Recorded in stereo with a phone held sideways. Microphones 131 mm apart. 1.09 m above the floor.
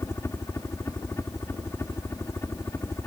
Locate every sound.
0.0 s a helicopter: 20° left (ahead or behind)